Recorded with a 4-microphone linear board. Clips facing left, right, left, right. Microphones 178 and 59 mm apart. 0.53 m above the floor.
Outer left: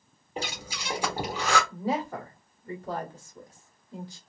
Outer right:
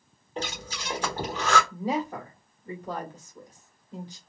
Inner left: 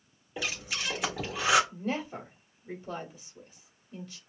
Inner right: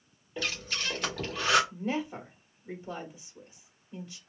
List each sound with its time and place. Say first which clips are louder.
0.4 s breathing: outer right 1 dB, even; 10° left (ahead or behind), 1.3 m
1.7 s a woman speaking: outer right 1 dB, inner right 1 dB; 15° right (ahead or behind), 1.4 m